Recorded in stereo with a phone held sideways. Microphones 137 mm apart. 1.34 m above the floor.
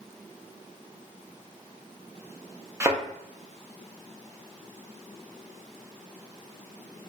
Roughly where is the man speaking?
I don't hear a man speaking.